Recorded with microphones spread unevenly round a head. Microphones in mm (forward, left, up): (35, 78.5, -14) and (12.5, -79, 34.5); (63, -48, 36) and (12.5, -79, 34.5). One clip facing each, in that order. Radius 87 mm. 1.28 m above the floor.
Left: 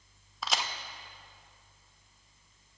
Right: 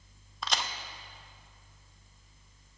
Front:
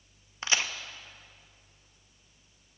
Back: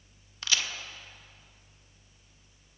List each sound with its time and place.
0.4 s a crack: 20° right, 0.8 m